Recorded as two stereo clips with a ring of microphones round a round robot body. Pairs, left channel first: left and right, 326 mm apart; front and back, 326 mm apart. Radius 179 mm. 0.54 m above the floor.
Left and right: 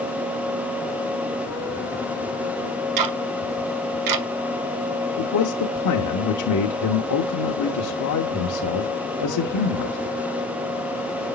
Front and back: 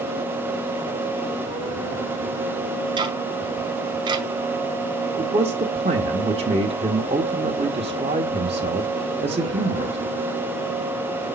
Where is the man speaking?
110° left, 1.2 m.